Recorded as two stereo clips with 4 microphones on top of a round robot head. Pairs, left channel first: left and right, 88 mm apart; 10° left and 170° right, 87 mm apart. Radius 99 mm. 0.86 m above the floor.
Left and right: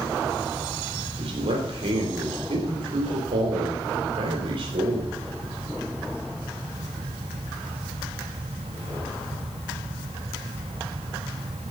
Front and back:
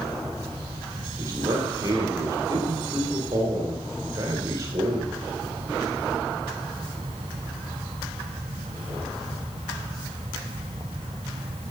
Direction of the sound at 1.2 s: 115° right.